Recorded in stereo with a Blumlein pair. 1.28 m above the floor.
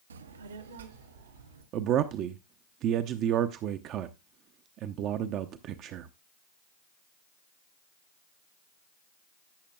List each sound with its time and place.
0.1 s a child speaking: 65° right, 0.6 m
1.7 s a man speaking: 35° right, 0.6 m